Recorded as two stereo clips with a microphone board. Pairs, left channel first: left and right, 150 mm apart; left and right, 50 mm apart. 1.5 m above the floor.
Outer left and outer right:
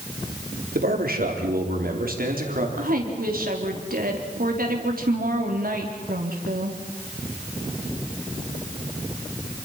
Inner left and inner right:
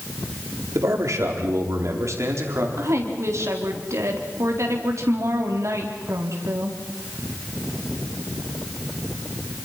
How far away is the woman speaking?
About 4 m.